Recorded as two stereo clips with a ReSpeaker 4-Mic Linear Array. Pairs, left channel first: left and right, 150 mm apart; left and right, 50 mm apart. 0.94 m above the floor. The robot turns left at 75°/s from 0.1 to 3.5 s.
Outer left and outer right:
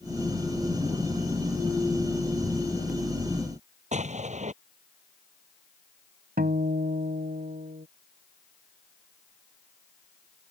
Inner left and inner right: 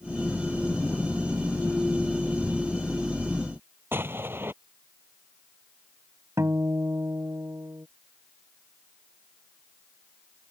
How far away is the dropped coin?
No dropped coin in this recording.